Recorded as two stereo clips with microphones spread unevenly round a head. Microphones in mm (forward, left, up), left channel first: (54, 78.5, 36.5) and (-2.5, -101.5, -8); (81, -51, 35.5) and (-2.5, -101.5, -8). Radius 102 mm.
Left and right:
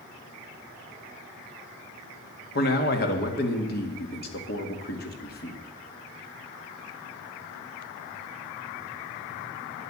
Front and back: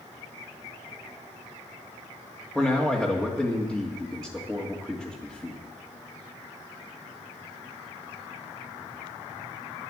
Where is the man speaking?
120° left, 1.8 m.